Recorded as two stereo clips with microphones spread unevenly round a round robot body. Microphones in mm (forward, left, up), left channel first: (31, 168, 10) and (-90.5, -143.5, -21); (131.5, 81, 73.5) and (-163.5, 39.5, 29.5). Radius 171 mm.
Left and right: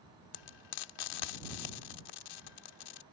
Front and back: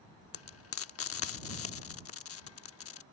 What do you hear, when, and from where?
0.3 s frying: 50° left